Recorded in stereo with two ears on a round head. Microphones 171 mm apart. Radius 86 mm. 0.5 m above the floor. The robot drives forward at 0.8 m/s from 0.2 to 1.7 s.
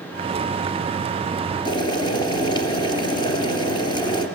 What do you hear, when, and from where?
1.6 s boiling: 25° left (ahead or behind), 3 m